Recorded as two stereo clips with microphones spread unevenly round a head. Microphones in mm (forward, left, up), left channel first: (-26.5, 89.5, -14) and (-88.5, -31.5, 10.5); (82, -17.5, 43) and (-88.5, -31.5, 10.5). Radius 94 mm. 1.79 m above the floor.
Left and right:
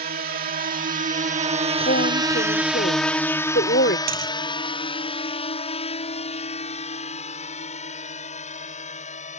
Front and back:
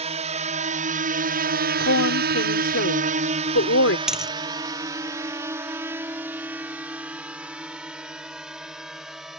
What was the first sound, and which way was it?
A drone, 125° right.